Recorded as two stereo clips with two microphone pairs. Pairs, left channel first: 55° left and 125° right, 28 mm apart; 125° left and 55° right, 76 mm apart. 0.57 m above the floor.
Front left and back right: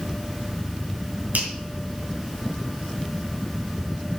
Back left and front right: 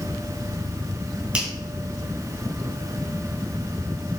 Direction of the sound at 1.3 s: 130° right.